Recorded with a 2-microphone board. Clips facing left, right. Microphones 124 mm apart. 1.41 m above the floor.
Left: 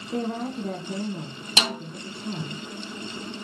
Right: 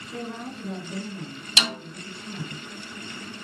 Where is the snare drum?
35° left (ahead or behind), 2 m.